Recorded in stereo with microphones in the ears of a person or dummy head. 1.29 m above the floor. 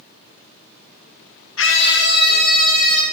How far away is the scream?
About 2 m.